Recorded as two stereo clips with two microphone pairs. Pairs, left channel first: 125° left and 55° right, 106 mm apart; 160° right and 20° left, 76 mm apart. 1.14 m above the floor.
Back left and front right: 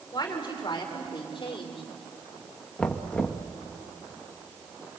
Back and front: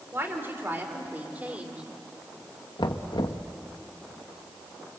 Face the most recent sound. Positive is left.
turn(degrees=-155)